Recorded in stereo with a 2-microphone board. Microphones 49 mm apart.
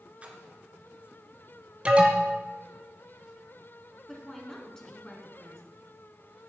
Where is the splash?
25° right (ahead or behind), 2.0 m.